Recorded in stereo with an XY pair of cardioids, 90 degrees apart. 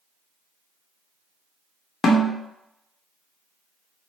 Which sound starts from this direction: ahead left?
A snare drum, at 2.0 s.